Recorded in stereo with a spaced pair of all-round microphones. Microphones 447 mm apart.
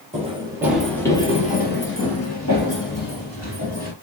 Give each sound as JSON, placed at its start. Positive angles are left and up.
{"t": 0.1, "sound": "running footsteps", "side_deg": -15, "distance_m": 1.5}